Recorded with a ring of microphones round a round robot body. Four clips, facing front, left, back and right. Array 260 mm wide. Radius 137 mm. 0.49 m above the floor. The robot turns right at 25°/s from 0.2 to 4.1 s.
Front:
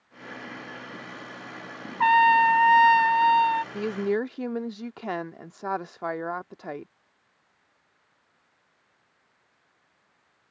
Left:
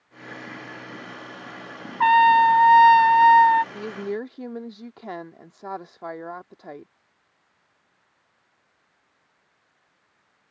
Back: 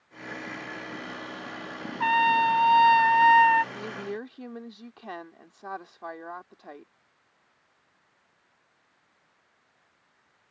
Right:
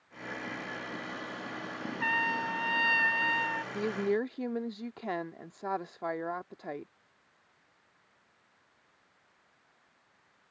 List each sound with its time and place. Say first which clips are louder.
2.0 s a trumpet: left 18 dB, front 4 dB; 65° left; by 3.6 s 105° left
3.7 s a woman speaking: even, front 9 dB; 10° right; by 6.9 s straight ahead